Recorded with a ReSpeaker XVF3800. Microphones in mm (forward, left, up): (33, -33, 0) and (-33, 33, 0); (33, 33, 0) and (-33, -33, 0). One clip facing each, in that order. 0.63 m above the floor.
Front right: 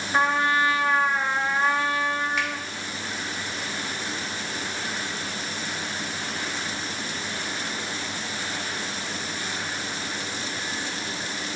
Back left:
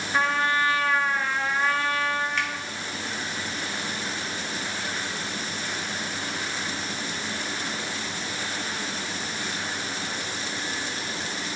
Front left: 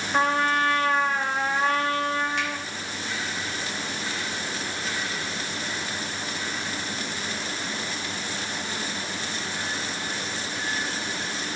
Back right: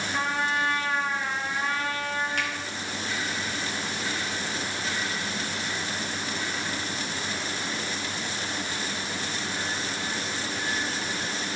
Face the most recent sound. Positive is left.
turn(degrees=-130)